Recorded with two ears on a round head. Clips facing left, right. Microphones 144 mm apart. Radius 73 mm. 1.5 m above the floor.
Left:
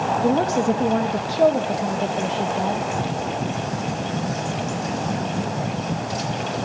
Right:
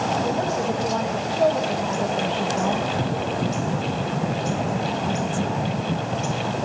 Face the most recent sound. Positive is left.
turn(degrees=0)  # may be behind; listen again after turning